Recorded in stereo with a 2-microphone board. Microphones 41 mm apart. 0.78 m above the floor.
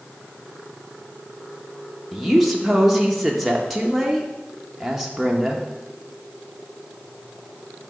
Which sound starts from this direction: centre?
A woman speaking, at 2.1 s.